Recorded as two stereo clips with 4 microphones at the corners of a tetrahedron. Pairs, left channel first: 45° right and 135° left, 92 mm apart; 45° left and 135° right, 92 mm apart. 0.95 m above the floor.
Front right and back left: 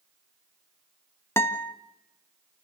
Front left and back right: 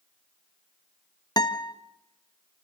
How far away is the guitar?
About 1.5 m.